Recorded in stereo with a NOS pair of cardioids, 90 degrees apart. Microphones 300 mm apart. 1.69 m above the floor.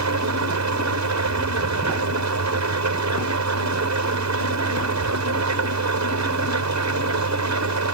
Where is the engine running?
65° right.